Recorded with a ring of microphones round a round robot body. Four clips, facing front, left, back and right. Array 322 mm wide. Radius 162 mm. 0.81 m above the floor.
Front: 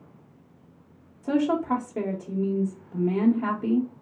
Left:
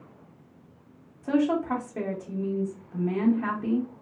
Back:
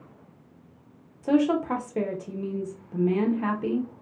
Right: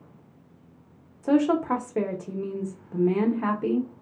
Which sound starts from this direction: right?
A woman speaking, at 1.2 s.